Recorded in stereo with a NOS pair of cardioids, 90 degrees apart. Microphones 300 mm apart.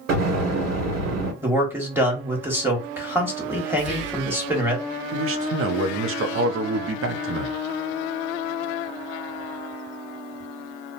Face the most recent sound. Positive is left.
turn(degrees=-50)